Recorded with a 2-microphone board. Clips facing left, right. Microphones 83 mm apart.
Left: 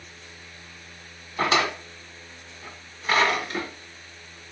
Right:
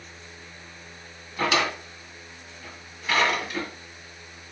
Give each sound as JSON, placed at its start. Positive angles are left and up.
{"t": 1.4, "sound": "a drawer", "side_deg": 35, "distance_m": 0.9}